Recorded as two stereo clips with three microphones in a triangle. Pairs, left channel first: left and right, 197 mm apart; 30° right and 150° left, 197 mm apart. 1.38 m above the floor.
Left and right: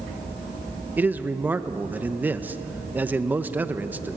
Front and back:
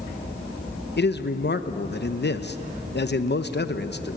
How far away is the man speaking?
About 0.9 m.